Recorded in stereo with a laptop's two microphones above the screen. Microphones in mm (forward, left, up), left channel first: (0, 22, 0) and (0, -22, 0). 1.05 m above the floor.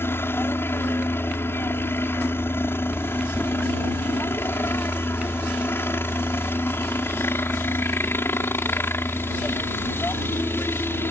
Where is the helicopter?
60° left (ahead or behind).